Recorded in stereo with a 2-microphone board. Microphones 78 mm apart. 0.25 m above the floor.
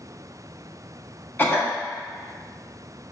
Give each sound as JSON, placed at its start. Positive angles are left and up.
{"t": 1.4, "sound": "a cough", "side_deg": 25, "distance_m": 1.1}